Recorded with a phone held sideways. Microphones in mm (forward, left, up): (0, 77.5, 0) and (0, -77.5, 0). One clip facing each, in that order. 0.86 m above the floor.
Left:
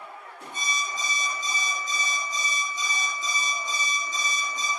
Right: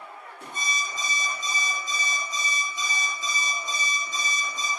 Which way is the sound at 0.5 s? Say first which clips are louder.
Left 1 dB; 80° right.